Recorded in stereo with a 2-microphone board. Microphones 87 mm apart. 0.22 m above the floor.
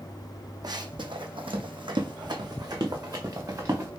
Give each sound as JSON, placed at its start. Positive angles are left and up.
{"t": 0.6, "sound": "running footsteps", "side_deg": -50, "distance_m": 0.7}